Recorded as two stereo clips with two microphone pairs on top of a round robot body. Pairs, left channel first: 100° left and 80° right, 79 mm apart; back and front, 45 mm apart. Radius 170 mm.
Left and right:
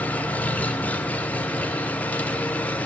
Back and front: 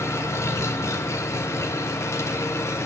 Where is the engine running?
175° left, 1.0 m.